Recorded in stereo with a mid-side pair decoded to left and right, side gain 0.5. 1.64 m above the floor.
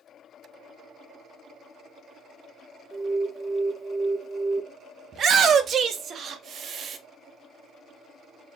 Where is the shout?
55° right, 0.7 m.